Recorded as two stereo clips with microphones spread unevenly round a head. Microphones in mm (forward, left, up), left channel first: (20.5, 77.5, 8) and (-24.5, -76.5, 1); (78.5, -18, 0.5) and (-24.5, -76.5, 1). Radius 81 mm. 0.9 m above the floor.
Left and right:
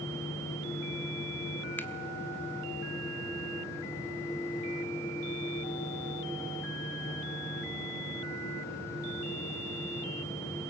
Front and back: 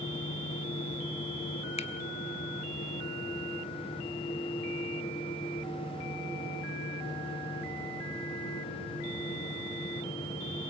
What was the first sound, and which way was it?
A finger snap, 5° right.